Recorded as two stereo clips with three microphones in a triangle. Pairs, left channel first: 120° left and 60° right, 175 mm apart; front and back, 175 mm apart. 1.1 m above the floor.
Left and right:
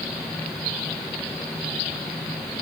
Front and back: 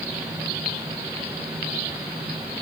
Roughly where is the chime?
I don't hear a chime.